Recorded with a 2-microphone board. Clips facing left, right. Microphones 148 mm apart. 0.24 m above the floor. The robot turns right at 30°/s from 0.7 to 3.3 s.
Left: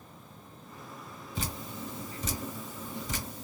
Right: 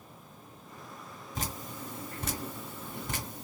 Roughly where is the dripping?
Right.